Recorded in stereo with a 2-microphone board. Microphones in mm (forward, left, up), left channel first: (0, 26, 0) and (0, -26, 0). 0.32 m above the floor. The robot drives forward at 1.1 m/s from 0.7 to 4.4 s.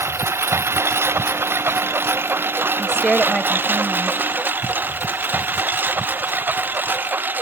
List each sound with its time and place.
0.0 s a lawn mower: 55° right (ahead or behind); by 7.4 s 40° right (ahead or behind)
2.8 s a woman speaking: 15° left (ahead or behind); by 4.2 s 5° left (ahead or behind)